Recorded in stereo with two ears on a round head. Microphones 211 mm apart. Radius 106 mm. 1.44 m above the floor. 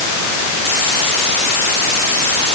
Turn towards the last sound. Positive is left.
No sound to turn to.